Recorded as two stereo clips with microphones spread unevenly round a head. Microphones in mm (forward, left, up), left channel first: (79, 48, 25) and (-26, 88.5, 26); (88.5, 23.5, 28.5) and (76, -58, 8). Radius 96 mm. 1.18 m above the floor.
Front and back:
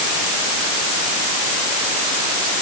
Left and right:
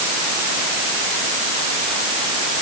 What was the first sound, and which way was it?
Only background noise.